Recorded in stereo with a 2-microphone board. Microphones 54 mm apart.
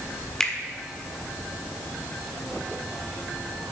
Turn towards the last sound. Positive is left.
turn(degrees=15)  # may be behind; listen again after turning